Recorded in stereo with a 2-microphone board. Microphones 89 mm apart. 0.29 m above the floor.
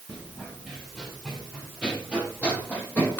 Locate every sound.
0.1 s running footsteps: centre (ahead or behind), 4 m; by 3.2 s 25° left (ahead or behind), 5 m